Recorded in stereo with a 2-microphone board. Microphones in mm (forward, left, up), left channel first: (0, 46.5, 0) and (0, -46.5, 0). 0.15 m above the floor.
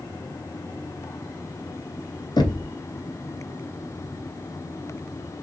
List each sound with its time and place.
2.4 s knocking: 50° left (ahead or behind), 1.2 m